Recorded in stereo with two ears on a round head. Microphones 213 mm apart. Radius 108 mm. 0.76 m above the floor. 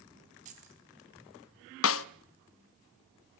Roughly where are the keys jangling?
Right.